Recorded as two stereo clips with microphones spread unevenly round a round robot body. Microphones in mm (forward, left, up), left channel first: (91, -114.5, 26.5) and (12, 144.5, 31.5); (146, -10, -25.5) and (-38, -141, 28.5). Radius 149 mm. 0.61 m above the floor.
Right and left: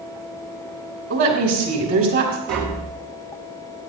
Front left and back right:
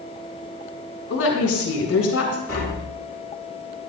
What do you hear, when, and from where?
1.1 s a woman speaking: 75° left, 3 m
2.5 s tapping: 120° left, 3 m